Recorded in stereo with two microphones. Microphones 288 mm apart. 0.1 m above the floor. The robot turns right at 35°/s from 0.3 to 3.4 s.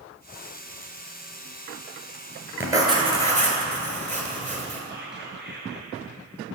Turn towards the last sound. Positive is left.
turn(degrees=-35)  # may be behind; listen again after turning